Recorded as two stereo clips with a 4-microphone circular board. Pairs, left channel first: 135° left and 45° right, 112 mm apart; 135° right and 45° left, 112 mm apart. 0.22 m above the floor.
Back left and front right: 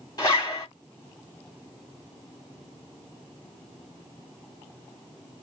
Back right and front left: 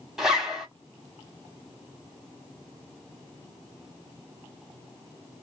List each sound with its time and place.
0.2 s a zipper: 125° left, 1.3 m